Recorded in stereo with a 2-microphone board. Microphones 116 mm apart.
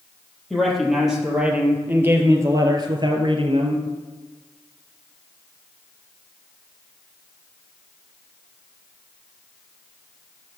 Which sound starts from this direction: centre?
A man speaking, at 0.5 s.